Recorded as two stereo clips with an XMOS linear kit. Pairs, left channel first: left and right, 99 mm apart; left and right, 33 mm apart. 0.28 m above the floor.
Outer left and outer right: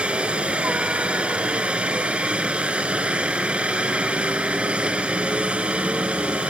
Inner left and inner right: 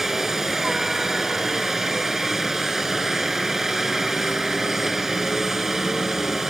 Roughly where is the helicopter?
Centre.